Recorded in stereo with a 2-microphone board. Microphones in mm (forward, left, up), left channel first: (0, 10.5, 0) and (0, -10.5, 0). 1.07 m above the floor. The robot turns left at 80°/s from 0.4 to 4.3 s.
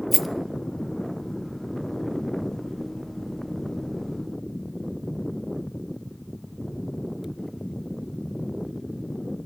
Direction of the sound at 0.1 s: 10° right (ahead or behind).